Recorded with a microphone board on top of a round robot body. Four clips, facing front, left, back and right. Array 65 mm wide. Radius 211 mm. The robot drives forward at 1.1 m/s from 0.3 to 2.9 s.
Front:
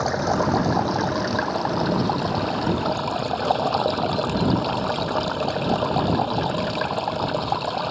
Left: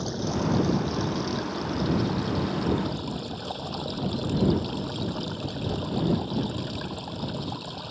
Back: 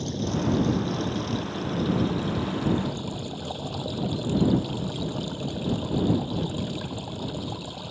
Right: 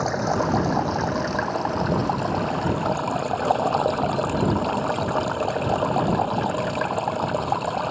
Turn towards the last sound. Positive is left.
turn(degrees=-55)